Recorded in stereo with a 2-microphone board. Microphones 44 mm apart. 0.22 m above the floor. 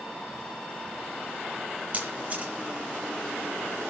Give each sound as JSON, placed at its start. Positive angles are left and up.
{"t": 1.9, "sound": "a camera shutter", "side_deg": -30, "distance_m": 7.5}